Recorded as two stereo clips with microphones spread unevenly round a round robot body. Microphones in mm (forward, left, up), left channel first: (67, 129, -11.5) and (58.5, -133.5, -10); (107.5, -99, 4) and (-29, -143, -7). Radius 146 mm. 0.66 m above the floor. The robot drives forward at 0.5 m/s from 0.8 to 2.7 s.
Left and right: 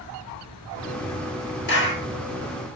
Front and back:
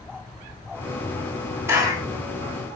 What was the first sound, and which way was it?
A clap, 125° left.